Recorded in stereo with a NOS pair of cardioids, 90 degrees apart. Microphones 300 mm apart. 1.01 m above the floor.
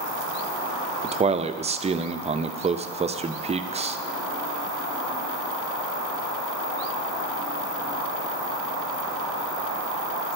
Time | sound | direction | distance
1.0 | a man speaking | 20° right | 0.6 m